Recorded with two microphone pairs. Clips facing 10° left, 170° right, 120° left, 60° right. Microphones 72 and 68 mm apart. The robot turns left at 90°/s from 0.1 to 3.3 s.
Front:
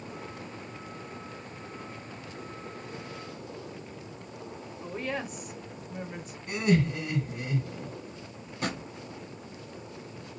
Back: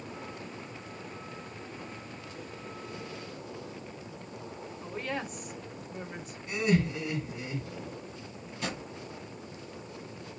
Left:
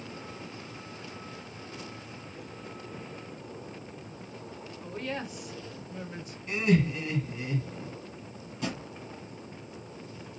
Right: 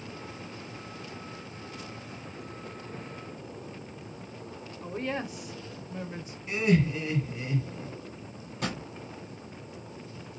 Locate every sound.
4.8 s a woman speaking: 75° right, 0.9 m
6.5 s laughter: 25° left, 2.5 m
8.6 s a drawer: 30° right, 1.4 m